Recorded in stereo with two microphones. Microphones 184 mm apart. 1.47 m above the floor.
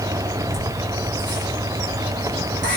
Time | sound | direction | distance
0.5 | laughter | 70° right (ahead or behind) | 4 m